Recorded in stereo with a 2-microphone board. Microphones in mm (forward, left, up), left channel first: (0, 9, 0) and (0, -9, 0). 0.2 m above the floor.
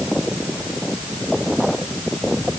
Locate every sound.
Only background noise.